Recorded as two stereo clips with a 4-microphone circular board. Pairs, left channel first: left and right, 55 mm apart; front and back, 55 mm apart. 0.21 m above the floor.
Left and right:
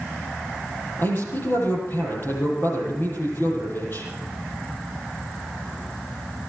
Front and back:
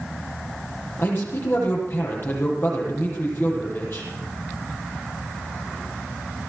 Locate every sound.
1.0 s a man speaking: 45° left, 7 m